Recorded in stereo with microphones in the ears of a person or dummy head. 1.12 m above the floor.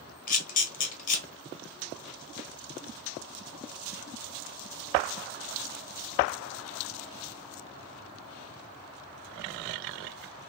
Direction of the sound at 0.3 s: 45° left (ahead or behind).